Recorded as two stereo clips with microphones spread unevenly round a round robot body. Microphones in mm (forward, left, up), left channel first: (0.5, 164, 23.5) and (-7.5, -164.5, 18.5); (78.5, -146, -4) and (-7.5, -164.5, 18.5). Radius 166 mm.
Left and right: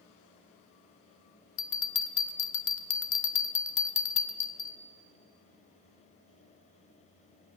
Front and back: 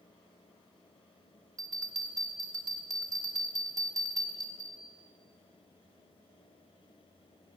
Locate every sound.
1.6 s a bell: 130° left, 1.0 m